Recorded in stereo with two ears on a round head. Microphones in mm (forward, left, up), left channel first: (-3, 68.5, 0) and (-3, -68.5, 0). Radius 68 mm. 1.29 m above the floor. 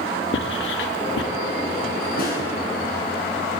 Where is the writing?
80° left, 2.5 m.